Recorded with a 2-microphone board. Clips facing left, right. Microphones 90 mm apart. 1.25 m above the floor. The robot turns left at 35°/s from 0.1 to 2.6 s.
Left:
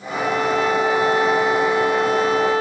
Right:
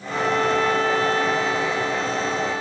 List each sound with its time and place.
0.1 s a violin: 170° right, 2.5 m; by 2.6 s 105° left, 2.5 m